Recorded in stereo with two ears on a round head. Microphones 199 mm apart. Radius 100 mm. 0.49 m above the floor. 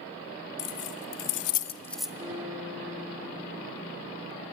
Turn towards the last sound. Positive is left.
turn(degrees=-10)  # may be behind; listen again after turning